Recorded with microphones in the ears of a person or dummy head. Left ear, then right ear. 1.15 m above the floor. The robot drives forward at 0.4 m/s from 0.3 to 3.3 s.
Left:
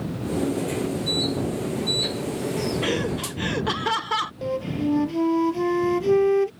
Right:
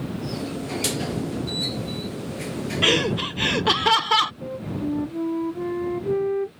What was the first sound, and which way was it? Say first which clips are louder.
Laughter: right 6 dB; 30° right (ahead or behind).